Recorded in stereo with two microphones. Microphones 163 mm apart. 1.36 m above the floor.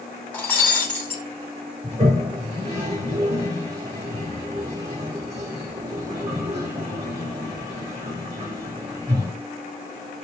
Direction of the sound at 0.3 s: 10° left (ahead or behind).